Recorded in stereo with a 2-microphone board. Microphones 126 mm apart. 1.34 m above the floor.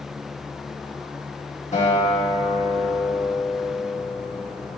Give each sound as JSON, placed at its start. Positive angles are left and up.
{"t": 1.7, "sound": "a guitar", "side_deg": 65, "distance_m": 1.6}